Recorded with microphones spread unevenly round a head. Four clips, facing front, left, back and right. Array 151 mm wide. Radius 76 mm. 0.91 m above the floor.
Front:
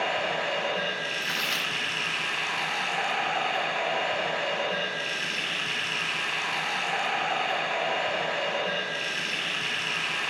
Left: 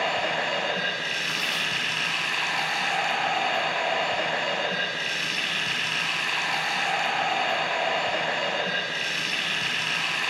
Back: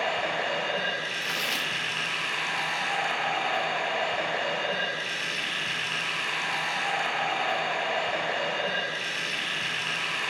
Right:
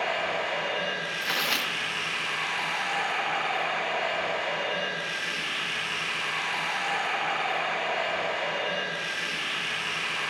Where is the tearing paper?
120° right, 0.6 m.